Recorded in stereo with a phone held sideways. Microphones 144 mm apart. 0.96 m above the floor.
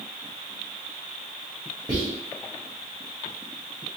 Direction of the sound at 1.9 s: 30° right (ahead or behind).